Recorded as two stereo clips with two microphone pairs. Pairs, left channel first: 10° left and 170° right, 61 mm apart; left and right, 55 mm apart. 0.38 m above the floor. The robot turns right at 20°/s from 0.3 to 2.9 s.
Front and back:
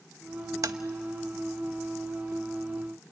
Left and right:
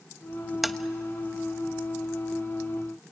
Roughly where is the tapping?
Behind.